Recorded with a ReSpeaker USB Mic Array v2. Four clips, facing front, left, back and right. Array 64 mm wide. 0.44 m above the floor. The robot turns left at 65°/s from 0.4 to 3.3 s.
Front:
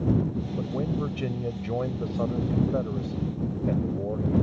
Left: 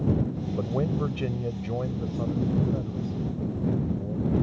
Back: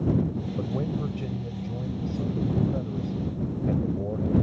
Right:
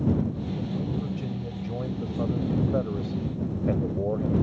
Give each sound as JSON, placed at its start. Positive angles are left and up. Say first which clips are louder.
{"t": 0.6, "sound": "a man speaking", "louder": "left 7 dB, front 1 dB", "azimuth_deg": 95}